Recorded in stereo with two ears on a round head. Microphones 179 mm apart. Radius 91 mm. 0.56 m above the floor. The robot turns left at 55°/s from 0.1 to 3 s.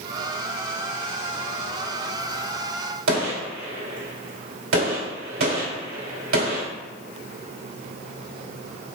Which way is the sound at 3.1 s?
75° right (ahead or behind).